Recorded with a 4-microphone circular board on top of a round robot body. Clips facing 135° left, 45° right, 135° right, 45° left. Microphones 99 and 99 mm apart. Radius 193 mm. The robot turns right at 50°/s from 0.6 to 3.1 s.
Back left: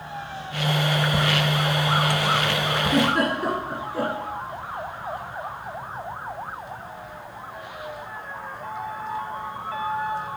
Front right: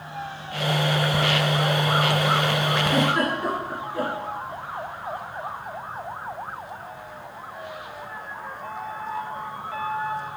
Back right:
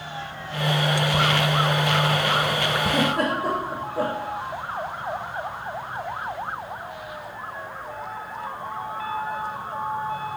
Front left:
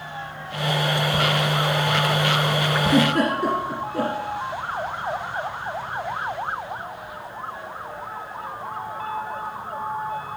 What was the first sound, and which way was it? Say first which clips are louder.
A giggle: back left 3 dB, front left 5 dB; 55° left.